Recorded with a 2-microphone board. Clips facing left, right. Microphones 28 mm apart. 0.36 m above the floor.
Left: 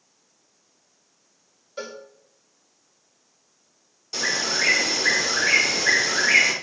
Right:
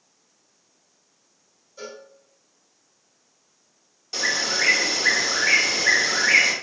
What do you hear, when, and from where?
1.8 s a cowbell: 60° left (ahead or behind), 3 m
4.1 s a bird: 5° right (ahead or behind), 2.5 m